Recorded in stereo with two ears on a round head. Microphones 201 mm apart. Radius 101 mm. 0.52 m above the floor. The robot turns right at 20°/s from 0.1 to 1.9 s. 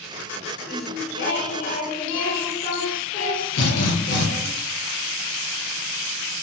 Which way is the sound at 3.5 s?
75° left (ahead or behind).